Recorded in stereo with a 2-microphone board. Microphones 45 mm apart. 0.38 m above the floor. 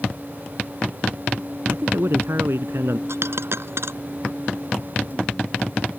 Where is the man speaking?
70° right (ahead or behind); by 3.0 s 75° right (ahead or behind).